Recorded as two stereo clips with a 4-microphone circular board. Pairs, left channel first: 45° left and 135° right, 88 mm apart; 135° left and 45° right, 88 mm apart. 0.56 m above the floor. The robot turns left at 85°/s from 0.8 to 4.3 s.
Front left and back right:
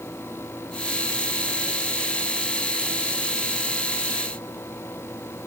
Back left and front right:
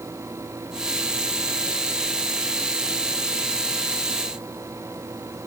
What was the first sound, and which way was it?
Only background noise.